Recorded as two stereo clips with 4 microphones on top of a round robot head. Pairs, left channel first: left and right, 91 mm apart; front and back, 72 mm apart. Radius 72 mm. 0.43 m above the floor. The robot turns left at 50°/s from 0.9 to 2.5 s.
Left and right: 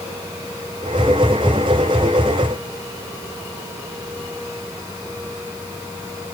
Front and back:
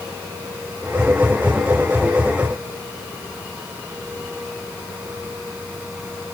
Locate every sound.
Only background noise.